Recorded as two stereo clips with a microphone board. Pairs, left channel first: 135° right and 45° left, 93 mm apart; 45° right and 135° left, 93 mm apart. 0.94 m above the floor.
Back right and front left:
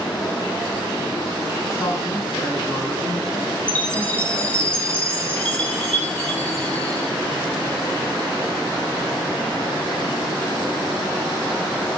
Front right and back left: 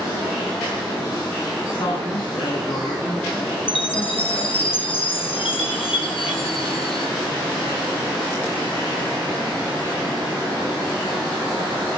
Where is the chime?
60° right, 6 m.